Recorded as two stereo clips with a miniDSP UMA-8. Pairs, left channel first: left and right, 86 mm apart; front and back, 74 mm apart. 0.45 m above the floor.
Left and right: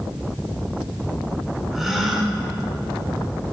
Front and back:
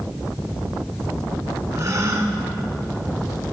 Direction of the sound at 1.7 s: 175° right.